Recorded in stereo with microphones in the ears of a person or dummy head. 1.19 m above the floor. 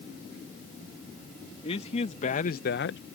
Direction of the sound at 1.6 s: 35° left (ahead or behind).